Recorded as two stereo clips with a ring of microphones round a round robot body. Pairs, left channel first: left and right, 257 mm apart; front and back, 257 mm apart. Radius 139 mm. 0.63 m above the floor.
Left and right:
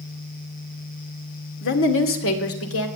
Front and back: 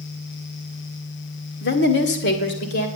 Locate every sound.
1.6 s a woman speaking: 50° left, 1.9 m